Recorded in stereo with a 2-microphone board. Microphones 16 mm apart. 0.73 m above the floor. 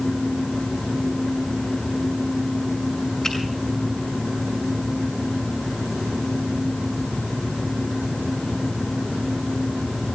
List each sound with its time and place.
3.2 s a finger snap: 45° left (ahead or behind), 6.5 m